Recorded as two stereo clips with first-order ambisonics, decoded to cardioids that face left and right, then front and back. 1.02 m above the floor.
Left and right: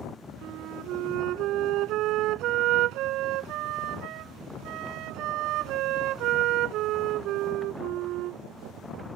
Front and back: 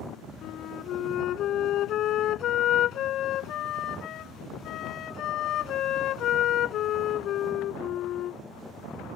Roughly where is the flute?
Ahead right.